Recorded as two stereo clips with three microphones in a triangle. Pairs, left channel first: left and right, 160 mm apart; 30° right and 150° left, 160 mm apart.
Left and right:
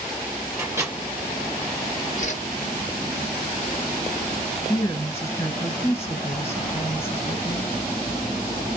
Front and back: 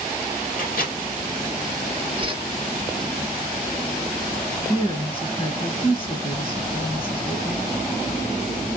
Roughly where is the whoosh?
Left.